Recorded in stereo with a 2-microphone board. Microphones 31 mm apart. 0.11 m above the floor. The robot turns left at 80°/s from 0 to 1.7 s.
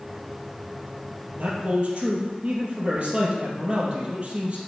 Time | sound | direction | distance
1.4 | a man speaking | 55° right (ahead or behind) | 2.5 m